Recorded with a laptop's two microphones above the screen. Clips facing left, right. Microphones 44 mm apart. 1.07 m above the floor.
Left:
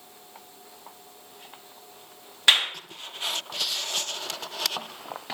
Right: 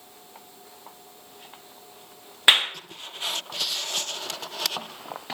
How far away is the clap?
About 1.0 m.